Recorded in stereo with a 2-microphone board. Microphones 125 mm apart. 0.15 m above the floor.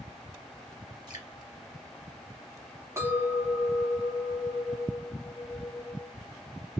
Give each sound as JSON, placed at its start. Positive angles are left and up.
{"t": 1.1, "sound": "dripping", "side_deg": -35, "distance_m": 1.8}
{"t": 3.0, "sound": "a clink", "side_deg": -25, "distance_m": 1.0}